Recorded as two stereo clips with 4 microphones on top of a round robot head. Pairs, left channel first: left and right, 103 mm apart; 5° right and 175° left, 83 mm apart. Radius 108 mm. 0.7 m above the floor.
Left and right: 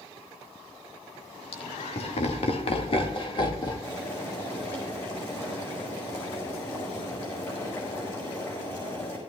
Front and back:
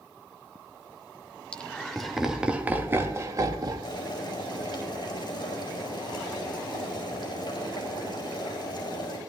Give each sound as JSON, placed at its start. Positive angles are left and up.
{"t": 1.5, "sound": "laughter", "azimuth_deg": 70, "distance_m": 2.0}
{"t": 3.8, "sound": "boiling", "azimuth_deg": 30, "distance_m": 5.5}